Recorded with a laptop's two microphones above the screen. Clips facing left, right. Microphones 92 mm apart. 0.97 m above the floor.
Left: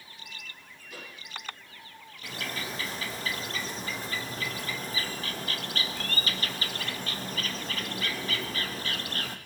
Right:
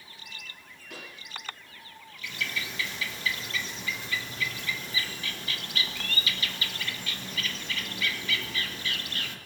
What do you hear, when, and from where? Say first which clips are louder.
0.9 s a pop: right 1 dB; 75° right (ahead or behind), 7.5 m
2.2 s a bird: even; 40° left (ahead or behind), 0.9 m